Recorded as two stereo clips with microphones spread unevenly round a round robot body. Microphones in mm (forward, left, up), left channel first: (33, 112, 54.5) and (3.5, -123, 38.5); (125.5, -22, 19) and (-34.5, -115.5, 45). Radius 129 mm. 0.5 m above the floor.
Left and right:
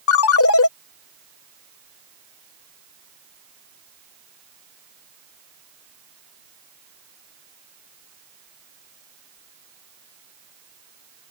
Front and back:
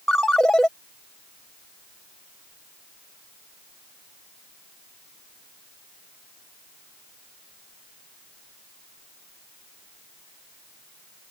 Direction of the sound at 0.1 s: 120° left.